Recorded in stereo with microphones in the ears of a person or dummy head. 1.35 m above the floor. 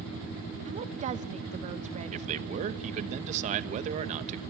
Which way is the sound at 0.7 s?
40° right (ahead or behind).